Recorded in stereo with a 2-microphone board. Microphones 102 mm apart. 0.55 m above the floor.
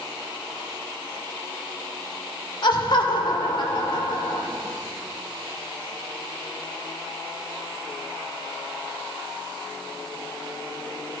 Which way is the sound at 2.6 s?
55° left (ahead or behind).